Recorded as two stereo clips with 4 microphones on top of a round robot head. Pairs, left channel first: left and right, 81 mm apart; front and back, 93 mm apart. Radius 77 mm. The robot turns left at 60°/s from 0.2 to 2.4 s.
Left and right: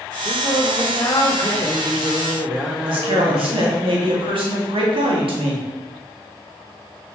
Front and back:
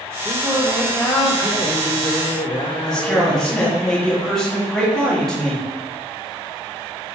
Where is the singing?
115° left, 0.8 m; by 3.9 s 15° right, 0.8 m.